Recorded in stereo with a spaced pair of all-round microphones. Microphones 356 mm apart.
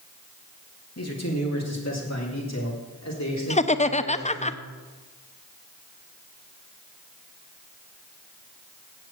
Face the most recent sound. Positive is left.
turn(degrees=20)  # may be behind; listen again after turning